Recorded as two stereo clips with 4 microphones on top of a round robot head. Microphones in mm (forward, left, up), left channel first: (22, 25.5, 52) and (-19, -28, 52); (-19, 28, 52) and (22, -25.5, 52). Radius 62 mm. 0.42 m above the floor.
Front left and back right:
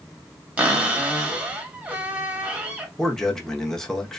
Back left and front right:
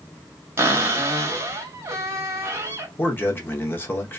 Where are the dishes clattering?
No dishes clattering in this recording.